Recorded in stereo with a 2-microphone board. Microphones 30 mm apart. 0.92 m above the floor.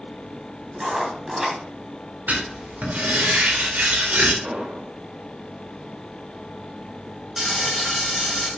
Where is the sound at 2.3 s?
75° right (ahead or behind), 2.5 m.